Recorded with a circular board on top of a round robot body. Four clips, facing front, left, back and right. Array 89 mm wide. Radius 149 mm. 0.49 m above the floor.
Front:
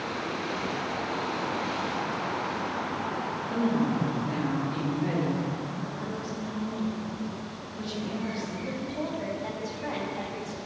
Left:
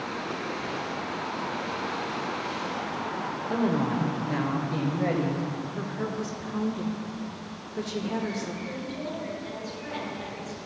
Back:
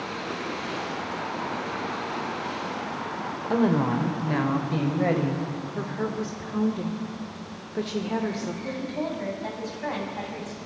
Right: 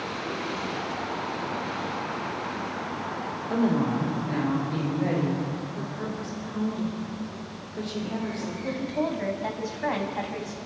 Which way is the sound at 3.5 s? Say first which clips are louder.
Right 2 dB, back 4 dB; straight behind.